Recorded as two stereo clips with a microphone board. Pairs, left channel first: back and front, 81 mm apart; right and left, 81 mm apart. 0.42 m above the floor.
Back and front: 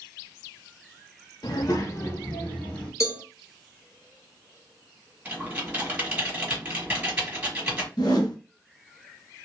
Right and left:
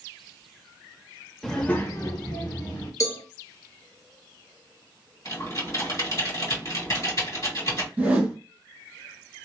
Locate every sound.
1.4 s a child speaking: 175° right, 0.6 m; by 2.9 s 110° right, 1.2 m
3.0 s a cowbell: 135° right, 1.3 m
5.2 s typing on a keyboard: 65° right, 1.7 m
8.0 s a whoosh: 160° left, 1.1 m